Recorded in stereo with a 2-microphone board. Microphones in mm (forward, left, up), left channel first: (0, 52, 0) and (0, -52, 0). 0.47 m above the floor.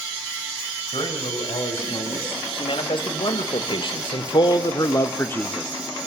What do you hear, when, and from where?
0.9 s a man speaking: 55° left (ahead or behind), 3 m; by 5.7 s 5° left (ahead or behind), 0.8 m